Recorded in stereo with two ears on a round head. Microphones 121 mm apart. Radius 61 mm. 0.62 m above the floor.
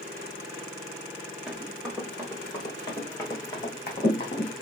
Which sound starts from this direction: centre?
Running footsteps, at 1.5 s.